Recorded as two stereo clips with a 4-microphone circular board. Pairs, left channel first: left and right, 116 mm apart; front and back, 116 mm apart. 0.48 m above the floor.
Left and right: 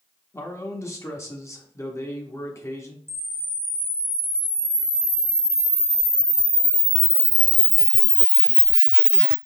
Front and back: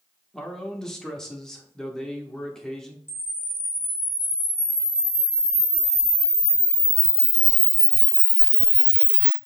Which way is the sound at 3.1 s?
50° right.